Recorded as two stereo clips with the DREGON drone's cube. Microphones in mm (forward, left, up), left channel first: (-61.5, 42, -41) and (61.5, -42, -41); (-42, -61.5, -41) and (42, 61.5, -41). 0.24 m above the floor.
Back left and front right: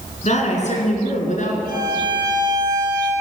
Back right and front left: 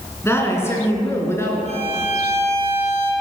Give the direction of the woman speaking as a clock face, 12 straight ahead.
6 o'clock.